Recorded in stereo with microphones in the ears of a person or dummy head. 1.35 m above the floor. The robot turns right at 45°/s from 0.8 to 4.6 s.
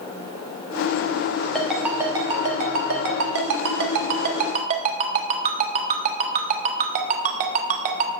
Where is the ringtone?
Centre (ahead or behind), 1.2 m; by 8.1 s 35° right (ahead or behind), 1.2 m.